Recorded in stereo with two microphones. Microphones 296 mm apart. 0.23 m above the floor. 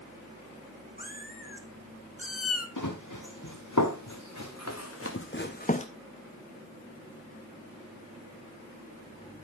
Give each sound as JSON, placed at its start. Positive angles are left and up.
{"t": 1.0, "sound": "a cat meowing", "side_deg": 30, "distance_m": 2.0}
{"t": 2.8, "sound": "running footsteps", "side_deg": 80, "distance_m": 2.5}